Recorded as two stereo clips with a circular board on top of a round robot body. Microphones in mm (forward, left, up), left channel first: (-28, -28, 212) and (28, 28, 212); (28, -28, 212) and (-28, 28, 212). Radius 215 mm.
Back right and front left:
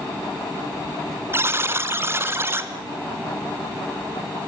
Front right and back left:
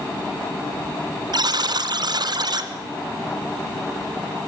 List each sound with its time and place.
1.3 s a buzzer: 105° left, 2 m